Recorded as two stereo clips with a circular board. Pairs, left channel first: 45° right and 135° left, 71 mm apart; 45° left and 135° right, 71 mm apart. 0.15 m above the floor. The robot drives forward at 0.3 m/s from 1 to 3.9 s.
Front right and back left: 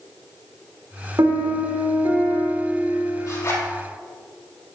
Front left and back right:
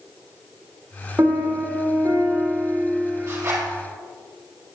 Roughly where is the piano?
Behind.